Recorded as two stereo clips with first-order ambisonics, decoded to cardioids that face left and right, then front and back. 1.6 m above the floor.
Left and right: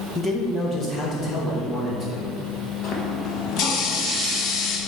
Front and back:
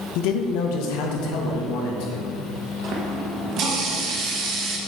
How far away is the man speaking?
About 0.7 m.